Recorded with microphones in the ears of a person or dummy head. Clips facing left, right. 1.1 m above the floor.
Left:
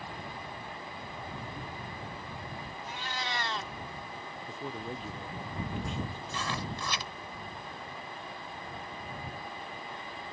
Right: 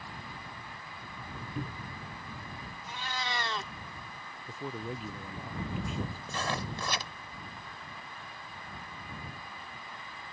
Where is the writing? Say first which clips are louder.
Right 1 dB; 45° right (ahead or behind).